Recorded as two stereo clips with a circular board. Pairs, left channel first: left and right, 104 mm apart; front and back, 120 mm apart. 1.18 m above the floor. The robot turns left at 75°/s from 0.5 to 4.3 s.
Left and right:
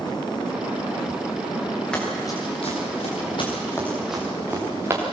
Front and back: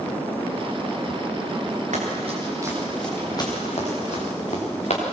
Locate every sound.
1.9 s running footsteps: 170° left, 8.5 m; by 5.0 s 25° right, 6.5 m